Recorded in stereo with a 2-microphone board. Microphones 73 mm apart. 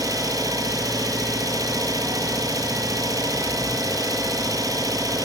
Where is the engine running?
60° right (ahead or behind), 0.8 m.